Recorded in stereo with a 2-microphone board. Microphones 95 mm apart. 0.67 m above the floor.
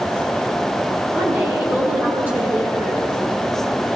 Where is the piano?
I don't hear a piano.